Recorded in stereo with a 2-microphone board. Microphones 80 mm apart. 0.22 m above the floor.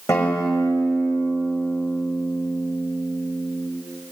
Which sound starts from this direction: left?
A guitar, at 0.1 s.